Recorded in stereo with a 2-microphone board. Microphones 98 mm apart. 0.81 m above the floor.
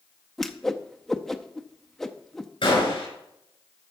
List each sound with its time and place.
0.4 s a whoosh: 5° left (ahead or behind), 0.6 m
2.6 s a gunshot: 55° left (ahead or behind), 5 m